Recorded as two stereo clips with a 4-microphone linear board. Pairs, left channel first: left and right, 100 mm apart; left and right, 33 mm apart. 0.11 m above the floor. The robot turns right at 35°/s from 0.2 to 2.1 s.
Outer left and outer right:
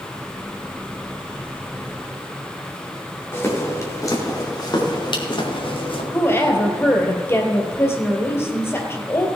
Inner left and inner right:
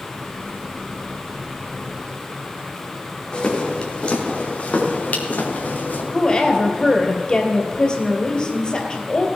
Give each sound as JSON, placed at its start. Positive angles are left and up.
{"t": 3.3, "sound": "footsteps", "side_deg": 25, "distance_m": 4.0}
{"t": 6.1, "sound": "a woman speaking", "side_deg": 25, "distance_m": 2.5}